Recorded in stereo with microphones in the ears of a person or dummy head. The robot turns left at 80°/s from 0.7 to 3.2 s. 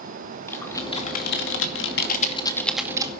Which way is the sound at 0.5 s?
165° left.